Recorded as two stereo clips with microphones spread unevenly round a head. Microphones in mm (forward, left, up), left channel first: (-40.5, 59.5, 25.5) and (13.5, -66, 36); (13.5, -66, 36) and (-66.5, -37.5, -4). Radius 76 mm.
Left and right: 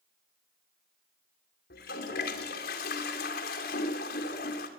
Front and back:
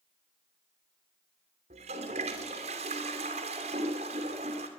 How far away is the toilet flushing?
About 2.5 m.